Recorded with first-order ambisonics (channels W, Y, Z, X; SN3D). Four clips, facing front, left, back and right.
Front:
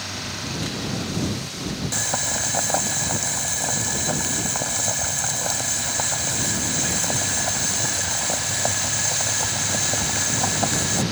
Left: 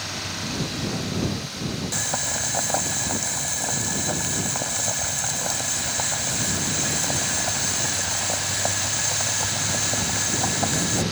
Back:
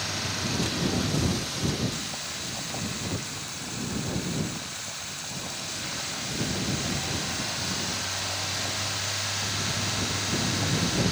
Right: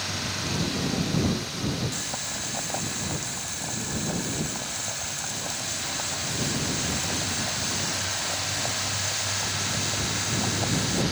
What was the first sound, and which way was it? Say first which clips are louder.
Boiling: left 5 dB, front 9 dB; 30° left.